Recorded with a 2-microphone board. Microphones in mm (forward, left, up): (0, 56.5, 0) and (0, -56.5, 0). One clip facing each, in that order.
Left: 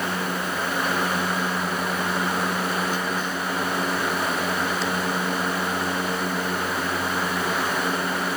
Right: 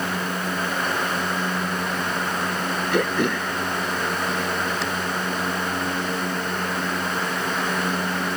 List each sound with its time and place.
2.9 s throat clearing: 70° right (ahead or behind)